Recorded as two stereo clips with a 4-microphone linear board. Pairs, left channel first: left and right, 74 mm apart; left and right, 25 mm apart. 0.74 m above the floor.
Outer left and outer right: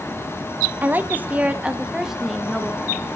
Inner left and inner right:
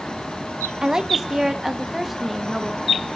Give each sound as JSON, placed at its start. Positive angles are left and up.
{"t": 0.8, "sound": "a woman speaking", "side_deg": -25, "distance_m": 0.9}